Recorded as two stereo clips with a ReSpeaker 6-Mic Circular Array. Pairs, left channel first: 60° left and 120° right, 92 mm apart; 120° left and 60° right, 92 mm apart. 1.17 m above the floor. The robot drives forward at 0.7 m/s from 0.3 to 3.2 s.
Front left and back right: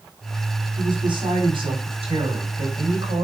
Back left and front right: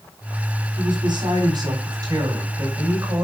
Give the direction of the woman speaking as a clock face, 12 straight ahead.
3 o'clock.